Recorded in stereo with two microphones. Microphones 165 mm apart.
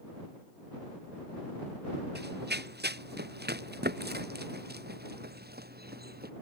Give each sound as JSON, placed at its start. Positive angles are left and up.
{"t": 2.1, "sound": "running footsteps", "side_deg": -75}